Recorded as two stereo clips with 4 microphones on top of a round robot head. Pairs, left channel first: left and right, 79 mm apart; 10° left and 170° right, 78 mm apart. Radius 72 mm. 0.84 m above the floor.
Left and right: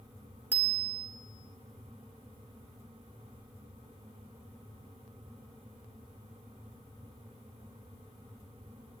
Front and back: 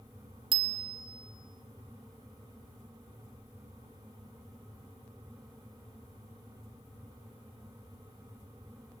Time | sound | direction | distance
0.5 | a bicycle bell | 160° right | 2 m